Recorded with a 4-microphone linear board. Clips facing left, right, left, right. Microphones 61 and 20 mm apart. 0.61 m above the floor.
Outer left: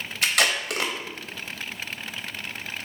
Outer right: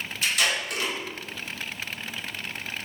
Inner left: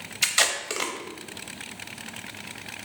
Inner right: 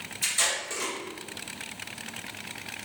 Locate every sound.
0.2 s tape being pulled: 70° left (ahead or behind), 0.7 m